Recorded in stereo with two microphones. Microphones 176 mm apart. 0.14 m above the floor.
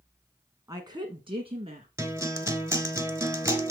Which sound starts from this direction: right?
A woman speaking, at 0.7 s.